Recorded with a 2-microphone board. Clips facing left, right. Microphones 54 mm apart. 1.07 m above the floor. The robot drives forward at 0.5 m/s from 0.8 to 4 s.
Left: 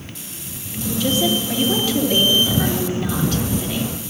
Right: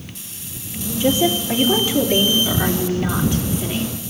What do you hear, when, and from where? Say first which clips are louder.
1.0 s a woman speaking: right 2 dB; 20° right (ahead or behind), 2.5 m; by 3.9 s 15° right (ahead or behind), 4 m